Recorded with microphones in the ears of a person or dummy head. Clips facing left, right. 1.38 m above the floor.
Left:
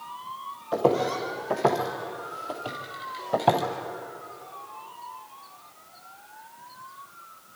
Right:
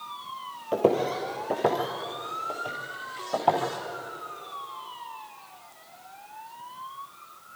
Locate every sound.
0.7 s footsteps: 30° right (ahead or behind), 2 m; by 3.6 s 25° left (ahead or behind), 2.5 m